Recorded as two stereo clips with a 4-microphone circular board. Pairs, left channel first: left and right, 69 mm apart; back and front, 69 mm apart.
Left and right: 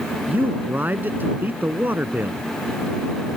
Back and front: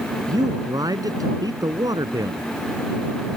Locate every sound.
0.3 s a man speaking: 25° right